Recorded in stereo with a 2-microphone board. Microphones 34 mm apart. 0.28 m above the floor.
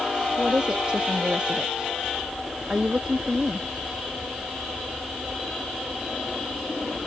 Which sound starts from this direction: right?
A woman speaking, at 0.4 s.